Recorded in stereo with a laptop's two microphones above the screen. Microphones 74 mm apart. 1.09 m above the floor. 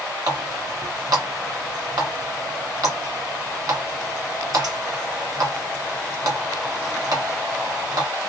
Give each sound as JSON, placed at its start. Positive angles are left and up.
{"t": 0.3, "sound": "a running tap", "side_deg": -65, "distance_m": 1.6}